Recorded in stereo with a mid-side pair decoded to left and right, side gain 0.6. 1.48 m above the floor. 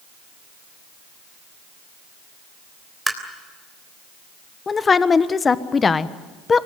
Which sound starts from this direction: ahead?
Tapping, at 3.1 s.